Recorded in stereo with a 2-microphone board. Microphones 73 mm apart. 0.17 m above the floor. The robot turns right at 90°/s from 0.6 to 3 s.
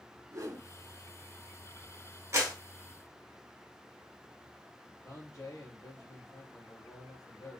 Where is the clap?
45° right (ahead or behind), 1.9 m; by 2.5 s 60° right (ahead or behind), 1.9 m.